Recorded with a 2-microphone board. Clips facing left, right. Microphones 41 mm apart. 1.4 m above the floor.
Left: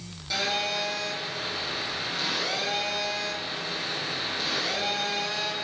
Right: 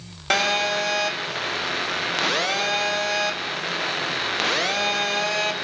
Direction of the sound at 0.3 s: 65° right (ahead or behind).